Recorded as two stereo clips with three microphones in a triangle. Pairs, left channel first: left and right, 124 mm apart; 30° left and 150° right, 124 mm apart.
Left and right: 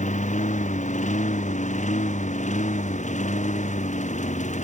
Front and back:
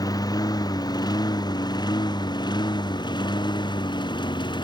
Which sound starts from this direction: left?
A lawn mower, at 0.0 s.